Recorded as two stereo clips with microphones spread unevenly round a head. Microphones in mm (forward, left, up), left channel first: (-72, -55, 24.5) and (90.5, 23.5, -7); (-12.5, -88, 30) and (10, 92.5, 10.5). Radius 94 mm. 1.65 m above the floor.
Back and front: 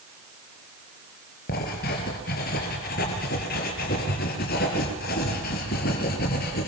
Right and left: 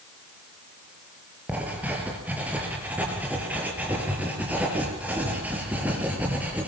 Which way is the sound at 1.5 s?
165° left.